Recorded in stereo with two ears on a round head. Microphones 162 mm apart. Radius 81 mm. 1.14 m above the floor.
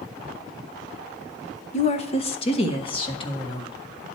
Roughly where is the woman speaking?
Left.